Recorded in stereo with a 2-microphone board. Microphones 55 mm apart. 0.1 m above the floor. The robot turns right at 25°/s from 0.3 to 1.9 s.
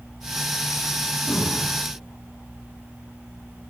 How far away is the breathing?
About 1.4 m.